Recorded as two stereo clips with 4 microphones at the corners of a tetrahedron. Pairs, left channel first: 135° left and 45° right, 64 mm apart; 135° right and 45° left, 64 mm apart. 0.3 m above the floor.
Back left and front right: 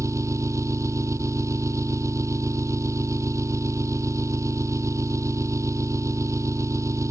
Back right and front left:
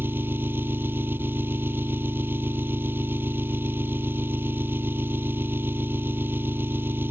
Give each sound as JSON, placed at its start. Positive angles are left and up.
{"t": 0.0, "sound": "an engine running", "azimuth_deg": -10}